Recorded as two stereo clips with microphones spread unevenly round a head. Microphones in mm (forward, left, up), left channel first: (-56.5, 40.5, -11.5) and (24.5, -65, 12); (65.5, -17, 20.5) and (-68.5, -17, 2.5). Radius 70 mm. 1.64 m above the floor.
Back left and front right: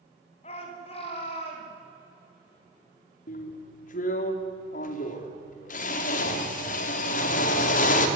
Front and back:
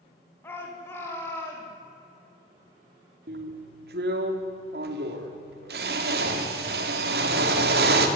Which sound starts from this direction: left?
A shout, at 0.4 s.